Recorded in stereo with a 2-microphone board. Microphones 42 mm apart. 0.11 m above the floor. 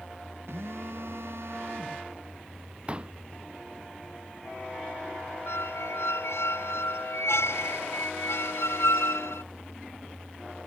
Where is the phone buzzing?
75° right (ahead or behind).